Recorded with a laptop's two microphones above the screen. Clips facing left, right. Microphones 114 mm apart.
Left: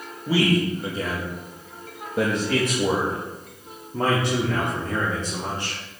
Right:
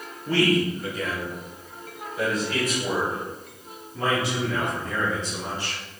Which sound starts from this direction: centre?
A man speaking, at 0.3 s.